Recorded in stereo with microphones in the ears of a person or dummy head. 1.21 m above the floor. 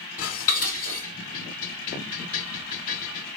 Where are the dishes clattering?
55° left (ahead or behind), 5 m.